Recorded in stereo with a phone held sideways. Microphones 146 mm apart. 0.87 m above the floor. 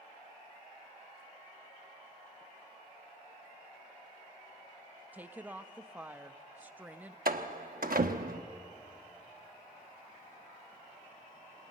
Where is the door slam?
75° right (ahead or behind), 1.0 m.